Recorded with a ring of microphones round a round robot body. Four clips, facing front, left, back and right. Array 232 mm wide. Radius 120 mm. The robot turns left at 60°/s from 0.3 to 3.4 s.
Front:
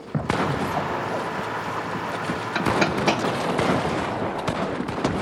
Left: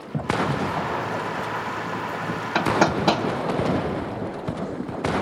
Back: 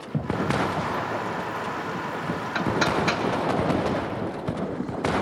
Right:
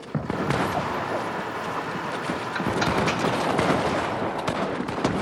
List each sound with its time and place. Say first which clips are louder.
2.5 s hammering: left 5 dB, front 2 dB; 90° left, 3 m; by 3.2 s 45° left, 3 m